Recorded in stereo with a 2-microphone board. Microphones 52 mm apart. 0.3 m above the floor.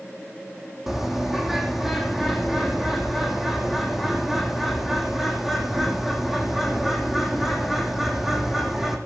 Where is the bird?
5° right (ahead or behind), 3 m.